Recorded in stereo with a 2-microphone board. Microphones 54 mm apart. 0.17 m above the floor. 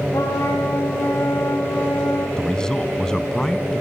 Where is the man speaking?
15° left (ahead or behind), 1.0 m.